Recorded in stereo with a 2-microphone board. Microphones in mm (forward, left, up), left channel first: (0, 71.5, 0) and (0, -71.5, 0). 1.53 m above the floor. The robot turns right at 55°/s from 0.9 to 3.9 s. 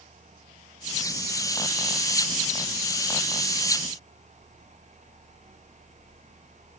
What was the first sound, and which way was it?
Only background noise.